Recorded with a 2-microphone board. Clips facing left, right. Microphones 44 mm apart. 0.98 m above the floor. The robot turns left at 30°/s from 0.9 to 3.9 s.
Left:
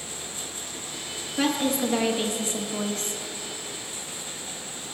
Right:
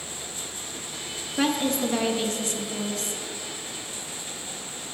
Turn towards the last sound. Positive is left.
turn(degrees=110)